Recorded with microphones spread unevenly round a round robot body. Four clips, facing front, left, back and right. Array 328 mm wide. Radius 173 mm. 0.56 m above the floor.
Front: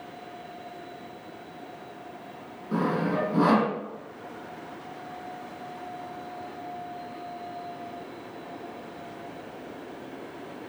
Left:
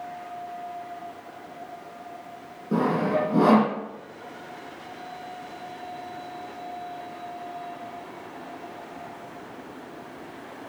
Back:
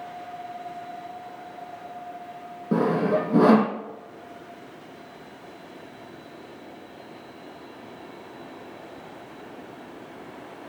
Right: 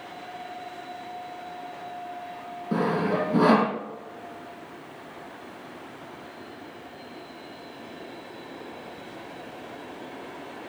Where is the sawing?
175° right, 6 m.